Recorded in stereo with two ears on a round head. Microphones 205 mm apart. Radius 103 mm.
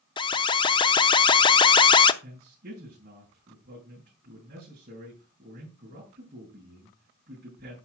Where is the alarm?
20° left (ahead or behind), 0.6 m.